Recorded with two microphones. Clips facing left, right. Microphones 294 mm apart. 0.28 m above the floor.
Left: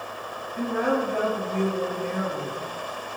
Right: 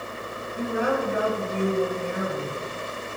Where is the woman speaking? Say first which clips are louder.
Left 1 dB; 10° right (ahead or behind), 1.6 m.